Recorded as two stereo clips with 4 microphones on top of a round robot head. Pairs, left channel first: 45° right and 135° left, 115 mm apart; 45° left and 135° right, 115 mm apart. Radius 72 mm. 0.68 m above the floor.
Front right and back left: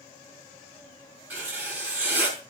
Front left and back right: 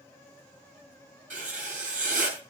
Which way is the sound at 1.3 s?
145° right.